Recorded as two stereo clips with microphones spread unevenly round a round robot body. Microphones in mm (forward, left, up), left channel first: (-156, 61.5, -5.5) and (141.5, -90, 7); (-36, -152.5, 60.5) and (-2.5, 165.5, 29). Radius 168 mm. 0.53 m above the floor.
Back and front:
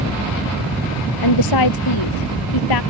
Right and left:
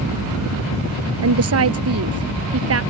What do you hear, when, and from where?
1.2 s a woman speaking: 125° left; by 2.8 s 130° left